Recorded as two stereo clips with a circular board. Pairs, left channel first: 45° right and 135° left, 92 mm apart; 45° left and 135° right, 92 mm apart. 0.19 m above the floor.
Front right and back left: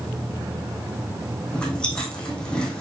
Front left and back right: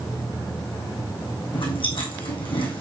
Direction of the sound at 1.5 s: 35° left.